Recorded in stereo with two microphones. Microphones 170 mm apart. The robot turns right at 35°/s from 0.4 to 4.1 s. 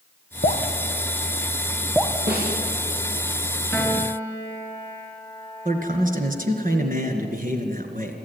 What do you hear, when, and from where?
0.4 s dripping: 50° left (ahead or behind), 2.5 m; by 2.2 s 15° right (ahead or behind), 2.5 m
2.3 s a snare drum: 70° right (ahead or behind), 8 m; by 2.5 s 75° right (ahead or behind), 8 m
3.7 s a piano: centre (ahead or behind), 2.5 m; by 6.7 s 15° left (ahead or behind), 2.5 m
5.7 s a man speaking: 55° right (ahead or behind), 2.5 m